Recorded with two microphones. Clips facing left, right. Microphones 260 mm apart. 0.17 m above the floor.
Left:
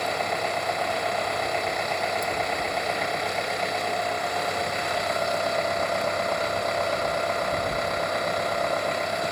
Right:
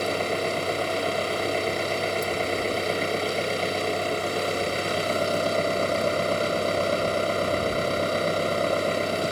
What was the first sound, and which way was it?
An engine running, 35° right (ahead or behind).